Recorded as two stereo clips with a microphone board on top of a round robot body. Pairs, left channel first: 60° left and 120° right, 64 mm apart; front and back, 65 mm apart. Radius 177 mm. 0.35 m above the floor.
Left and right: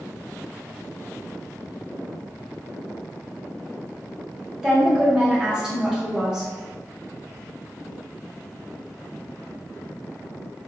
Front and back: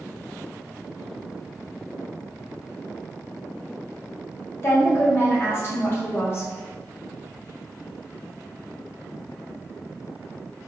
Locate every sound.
4.6 s a woman speaking: 40° right, 1.6 m